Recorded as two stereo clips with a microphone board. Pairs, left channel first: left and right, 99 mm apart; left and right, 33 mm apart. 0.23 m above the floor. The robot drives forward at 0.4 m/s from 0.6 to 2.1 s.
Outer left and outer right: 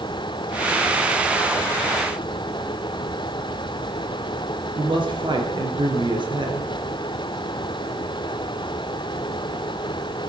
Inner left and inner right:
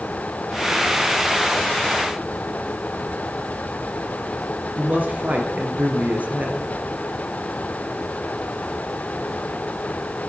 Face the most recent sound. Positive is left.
turn(degrees=-55)  # may be behind; listen again after turning